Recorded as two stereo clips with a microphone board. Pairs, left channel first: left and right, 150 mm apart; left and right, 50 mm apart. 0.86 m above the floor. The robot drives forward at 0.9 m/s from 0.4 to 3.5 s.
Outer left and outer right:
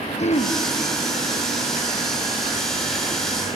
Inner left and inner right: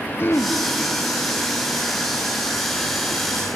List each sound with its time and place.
0.2 s throat clearing: 45° left (ahead or behind), 0.6 m; by 0.6 s 40° left (ahead or behind), 0.6 m